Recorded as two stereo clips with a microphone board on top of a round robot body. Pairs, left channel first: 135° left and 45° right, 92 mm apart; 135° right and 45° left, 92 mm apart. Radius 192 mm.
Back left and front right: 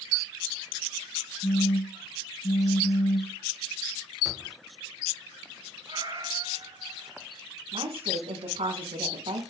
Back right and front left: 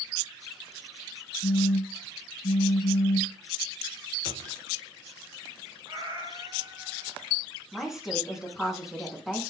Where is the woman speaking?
40° right, 7 m.